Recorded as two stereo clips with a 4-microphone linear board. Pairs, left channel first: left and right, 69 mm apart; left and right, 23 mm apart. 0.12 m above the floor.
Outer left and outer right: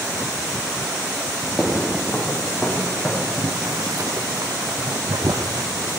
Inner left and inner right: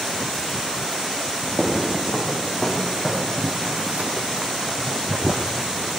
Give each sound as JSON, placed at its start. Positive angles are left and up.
{"t": 1.6, "sound": "footsteps", "side_deg": 0, "distance_m": 4.5}
{"t": 3.4, "sound": "boiling", "side_deg": -65, "distance_m": 1.8}